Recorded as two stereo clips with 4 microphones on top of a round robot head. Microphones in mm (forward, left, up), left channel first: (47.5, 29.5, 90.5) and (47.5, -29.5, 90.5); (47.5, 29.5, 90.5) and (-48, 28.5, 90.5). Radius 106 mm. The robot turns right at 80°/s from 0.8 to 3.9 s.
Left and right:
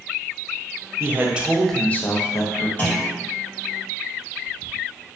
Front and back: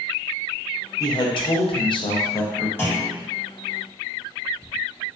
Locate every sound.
1.0 s a man speaking: 50° right, 0.6 m; by 2.7 s 85° left, 0.6 m
2.8 s a clunk: 50° left, 1.2 m; by 3.2 s 85° left, 1.2 m